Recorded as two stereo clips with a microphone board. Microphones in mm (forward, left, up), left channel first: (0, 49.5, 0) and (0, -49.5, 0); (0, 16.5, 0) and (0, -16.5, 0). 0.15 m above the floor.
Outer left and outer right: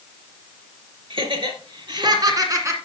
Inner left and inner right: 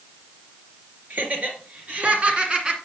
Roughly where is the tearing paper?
No tearing paper in this recording.